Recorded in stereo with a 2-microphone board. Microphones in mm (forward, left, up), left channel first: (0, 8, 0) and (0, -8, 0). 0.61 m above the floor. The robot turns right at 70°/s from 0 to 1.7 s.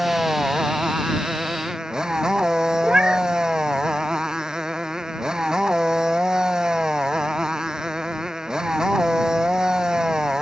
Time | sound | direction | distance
0.0 | a motorcycle | 170° right | ?
2.8 | a cat meowing | 70° right (ahead or behind) | ?